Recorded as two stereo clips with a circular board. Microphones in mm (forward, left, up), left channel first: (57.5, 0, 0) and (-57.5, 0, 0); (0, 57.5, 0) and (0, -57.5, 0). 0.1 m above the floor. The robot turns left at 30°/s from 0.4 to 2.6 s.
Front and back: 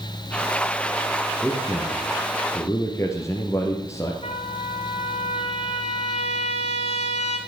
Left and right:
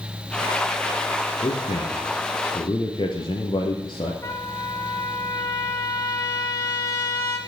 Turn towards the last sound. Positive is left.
turn(degrees=20)